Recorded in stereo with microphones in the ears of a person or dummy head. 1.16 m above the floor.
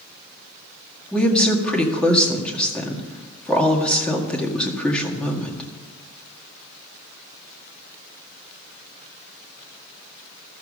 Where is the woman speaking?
5° left (ahead or behind), 1.9 m.